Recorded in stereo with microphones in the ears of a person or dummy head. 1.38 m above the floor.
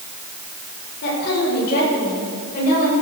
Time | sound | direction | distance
1.0 | a woman speaking | 70° left (ahead or behind) | 6 m